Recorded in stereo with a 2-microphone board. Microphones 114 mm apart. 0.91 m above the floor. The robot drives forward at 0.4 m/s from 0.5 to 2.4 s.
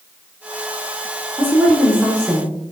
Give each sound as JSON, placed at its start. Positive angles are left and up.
{"t": 1.4, "sound": "a woman speaking", "side_deg": -15, "distance_m": 0.7}